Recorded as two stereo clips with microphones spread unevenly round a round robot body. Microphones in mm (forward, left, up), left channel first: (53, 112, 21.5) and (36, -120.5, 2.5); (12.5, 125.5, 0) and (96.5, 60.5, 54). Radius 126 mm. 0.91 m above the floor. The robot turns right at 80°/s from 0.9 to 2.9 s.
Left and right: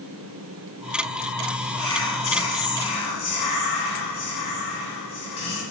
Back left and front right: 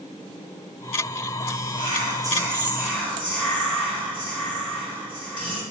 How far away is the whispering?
About 0.8 m.